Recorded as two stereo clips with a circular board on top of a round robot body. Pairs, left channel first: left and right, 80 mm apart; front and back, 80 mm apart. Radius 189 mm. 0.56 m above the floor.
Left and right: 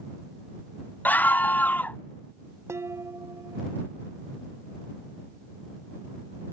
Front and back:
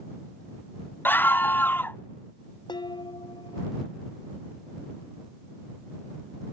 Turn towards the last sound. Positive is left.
turn(degrees=-30)